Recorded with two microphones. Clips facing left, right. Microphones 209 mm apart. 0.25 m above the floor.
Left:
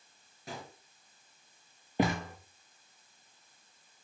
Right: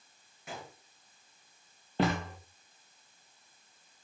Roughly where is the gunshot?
Left.